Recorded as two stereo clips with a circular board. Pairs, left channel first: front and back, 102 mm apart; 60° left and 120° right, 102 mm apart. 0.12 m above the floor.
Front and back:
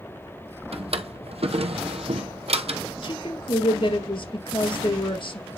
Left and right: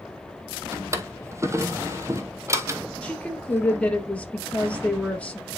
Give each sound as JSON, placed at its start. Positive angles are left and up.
{"t": 0.7, "sound": "a drawer", "azimuth_deg": 180, "distance_m": 1.1}
{"t": 3.0, "sound": "a woman speaking", "azimuth_deg": -15, "distance_m": 2.5}